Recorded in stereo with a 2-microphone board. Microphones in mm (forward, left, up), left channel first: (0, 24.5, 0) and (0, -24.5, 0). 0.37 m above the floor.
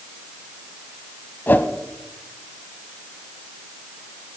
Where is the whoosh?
40° left (ahead or behind), 1.0 m.